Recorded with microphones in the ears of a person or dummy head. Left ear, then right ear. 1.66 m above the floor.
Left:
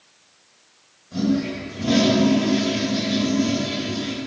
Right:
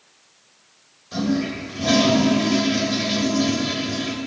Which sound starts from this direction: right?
A toilet flushing, at 1.1 s.